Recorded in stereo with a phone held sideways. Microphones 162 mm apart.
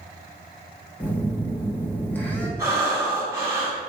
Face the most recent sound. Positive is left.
turn(degrees=-20)  # may be behind; listen again after turning